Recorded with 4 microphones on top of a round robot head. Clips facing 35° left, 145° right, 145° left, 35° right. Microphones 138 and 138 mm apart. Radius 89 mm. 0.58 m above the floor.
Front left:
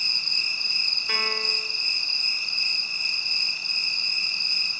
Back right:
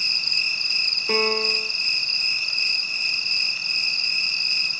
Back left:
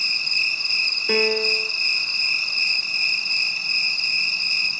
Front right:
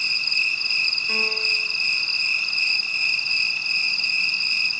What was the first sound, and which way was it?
An insect, 160° right.